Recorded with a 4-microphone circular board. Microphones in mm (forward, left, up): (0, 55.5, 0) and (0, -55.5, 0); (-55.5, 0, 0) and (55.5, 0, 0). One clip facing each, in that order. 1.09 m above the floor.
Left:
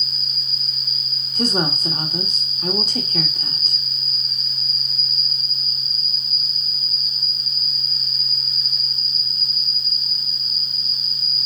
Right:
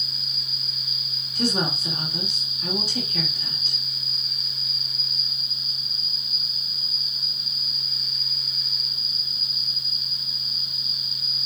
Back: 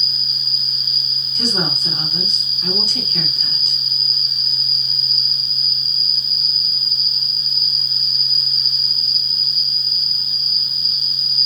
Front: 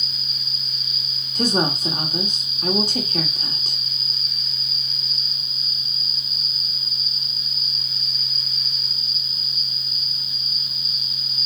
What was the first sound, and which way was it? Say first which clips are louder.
An insect: left 3 dB, back 3 dB; 155° right.